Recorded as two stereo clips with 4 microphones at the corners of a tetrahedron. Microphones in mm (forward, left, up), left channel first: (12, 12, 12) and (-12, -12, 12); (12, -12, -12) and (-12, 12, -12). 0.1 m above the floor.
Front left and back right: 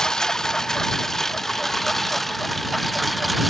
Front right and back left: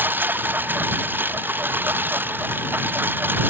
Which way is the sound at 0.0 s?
120° left.